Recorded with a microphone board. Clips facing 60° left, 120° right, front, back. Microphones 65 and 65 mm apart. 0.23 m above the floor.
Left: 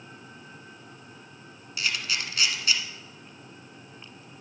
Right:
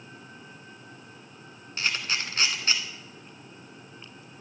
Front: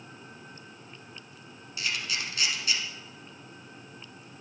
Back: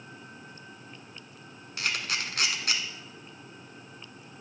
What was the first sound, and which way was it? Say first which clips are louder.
A camera shutter: right 1 dB, back 1 dB; 165° right.